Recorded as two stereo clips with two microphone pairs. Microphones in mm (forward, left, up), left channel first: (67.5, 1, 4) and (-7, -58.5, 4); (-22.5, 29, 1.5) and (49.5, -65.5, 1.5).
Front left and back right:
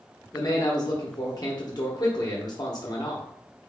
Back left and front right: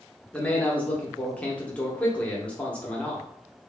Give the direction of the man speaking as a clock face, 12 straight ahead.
10 o'clock.